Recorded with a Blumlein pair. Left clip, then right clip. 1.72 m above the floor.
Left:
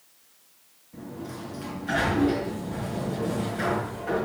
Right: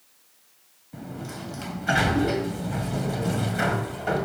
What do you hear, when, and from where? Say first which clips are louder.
0.9 s a sliding door: right 1 dB; 65° right, 1.6 m